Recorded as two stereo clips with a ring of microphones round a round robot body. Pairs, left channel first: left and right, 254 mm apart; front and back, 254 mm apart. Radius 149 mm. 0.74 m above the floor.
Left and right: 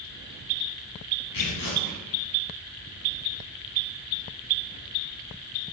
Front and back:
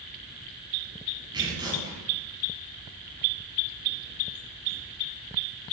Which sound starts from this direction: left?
Tearing paper, at 1.3 s.